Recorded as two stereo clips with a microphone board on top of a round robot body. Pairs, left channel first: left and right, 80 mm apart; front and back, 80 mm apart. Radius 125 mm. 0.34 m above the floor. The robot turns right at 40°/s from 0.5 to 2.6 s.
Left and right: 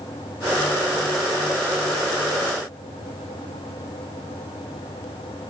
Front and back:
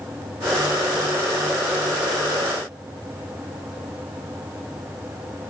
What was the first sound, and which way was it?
Only background noise.